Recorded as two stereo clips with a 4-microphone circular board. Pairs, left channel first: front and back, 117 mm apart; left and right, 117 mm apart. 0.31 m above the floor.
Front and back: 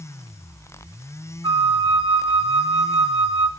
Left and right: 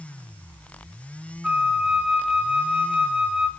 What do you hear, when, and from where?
1.4 s a flute: 165° right, 1.4 m